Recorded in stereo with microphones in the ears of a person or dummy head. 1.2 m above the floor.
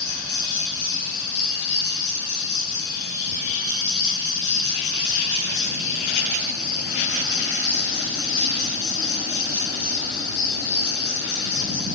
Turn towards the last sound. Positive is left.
turn(degrees=55)  # may be behind; listen again after turning